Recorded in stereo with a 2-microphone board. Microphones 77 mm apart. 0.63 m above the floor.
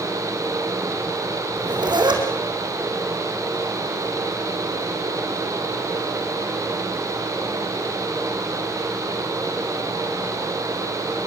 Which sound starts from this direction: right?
A zipper, at 1.6 s.